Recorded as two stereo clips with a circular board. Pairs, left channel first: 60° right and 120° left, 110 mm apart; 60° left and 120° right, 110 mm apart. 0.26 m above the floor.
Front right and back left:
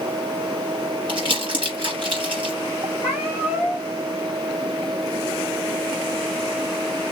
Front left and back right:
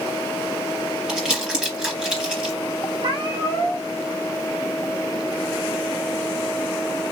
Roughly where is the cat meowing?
Behind.